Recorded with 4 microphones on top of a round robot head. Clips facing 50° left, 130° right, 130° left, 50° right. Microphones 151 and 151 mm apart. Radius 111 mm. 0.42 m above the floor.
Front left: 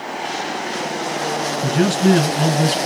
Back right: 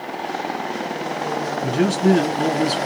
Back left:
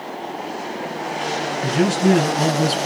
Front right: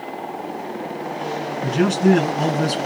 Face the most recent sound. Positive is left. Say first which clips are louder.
# front left 1 dB, front right 1 dB
turn(degrees=45)